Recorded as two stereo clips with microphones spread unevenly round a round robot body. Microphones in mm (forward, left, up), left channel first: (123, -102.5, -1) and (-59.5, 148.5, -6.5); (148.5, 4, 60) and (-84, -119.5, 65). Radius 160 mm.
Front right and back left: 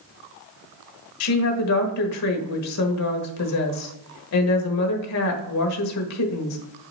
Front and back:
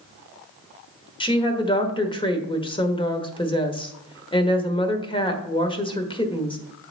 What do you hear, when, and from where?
1.2 s a woman speaking: 40° right, 1.4 m